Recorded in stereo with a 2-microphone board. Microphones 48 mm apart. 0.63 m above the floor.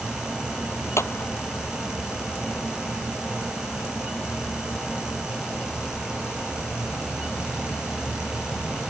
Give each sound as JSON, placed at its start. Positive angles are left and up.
{"t": 1.0, "sound": "a clap", "side_deg": 65}